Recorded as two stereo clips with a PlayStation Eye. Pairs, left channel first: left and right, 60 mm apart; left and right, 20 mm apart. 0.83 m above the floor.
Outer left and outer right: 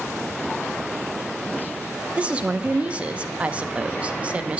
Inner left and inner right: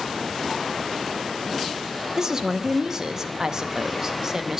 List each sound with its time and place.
2.2 s a woman speaking: 20° right (ahead or behind), 0.8 m